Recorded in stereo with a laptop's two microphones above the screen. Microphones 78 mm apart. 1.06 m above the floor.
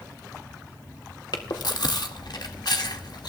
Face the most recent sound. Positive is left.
turn(degrees=65)  # may be behind; listen again after turning